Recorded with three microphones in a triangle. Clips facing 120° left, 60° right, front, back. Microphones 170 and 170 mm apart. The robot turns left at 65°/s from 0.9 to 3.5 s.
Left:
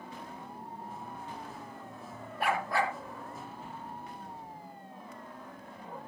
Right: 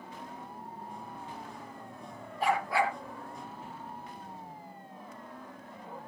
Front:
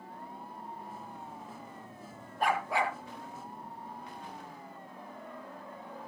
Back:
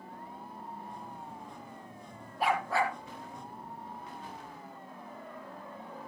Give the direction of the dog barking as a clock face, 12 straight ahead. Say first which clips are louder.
Right 2 dB, back 1 dB; 9 o'clock.